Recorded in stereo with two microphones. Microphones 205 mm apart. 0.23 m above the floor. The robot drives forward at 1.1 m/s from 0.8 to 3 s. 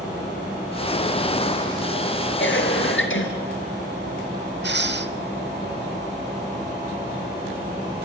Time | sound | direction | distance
2.4 | a cough | 70° left (ahead or behind) | 3.5 m
4.6 | breathing | 60° right (ahead or behind) | 0.6 m